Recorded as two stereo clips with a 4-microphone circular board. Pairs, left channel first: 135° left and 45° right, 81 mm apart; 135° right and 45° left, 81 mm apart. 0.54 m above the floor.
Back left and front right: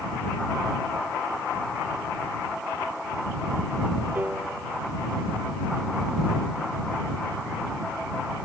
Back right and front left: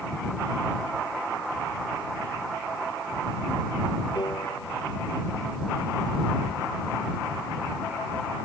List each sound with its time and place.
4.2 s a piano: 115° right